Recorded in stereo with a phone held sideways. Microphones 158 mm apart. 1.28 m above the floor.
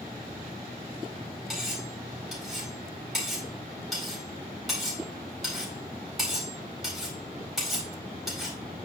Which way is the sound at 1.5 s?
Centre (ahead or behind).